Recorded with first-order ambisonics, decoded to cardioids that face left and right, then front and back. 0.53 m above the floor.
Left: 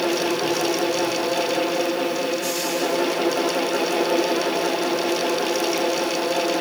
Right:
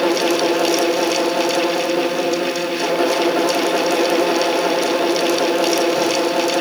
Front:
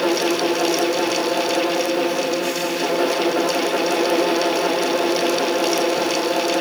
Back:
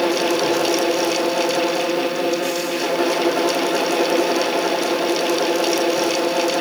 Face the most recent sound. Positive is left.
No sound to turn to.